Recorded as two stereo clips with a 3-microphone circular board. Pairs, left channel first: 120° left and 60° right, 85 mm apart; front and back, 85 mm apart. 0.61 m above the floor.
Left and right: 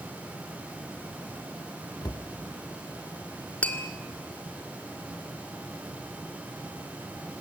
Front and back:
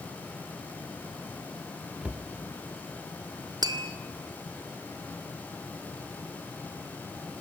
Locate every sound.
2.0 s a cupboard door: 110° left, 1.3 m
3.6 s tapping: 170° right, 1.9 m